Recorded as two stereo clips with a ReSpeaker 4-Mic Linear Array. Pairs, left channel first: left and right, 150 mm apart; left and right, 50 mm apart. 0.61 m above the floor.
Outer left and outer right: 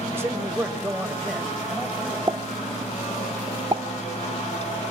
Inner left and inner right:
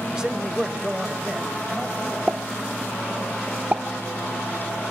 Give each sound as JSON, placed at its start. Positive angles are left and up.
{"t": 0.1, "sound": "a man speaking", "side_deg": -15, "distance_m": 2.5}
{"t": 2.3, "sound": "a pop", "side_deg": -25, "distance_m": 1.0}